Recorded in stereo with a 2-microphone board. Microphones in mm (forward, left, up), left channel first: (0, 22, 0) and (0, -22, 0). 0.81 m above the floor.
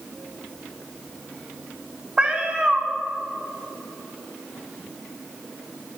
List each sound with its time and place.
2.2 s a cat meowing: 20° right (ahead or behind), 1.0 m